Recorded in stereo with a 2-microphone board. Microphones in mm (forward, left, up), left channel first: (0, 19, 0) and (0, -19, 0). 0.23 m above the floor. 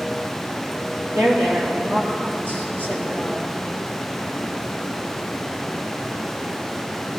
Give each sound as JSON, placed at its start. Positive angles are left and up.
{"t": 1.1, "sound": "a woman speaking", "side_deg": -70, "distance_m": 4.0}